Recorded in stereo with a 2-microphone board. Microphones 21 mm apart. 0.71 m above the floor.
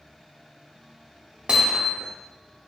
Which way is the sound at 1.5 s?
80° right.